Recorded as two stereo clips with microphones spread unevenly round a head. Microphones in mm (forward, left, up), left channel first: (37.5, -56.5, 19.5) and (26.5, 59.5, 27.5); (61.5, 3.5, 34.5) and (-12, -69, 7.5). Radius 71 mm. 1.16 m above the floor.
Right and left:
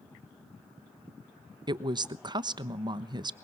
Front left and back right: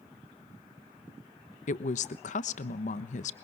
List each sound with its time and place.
1.7 s a woman speaking: 40° left, 1.1 m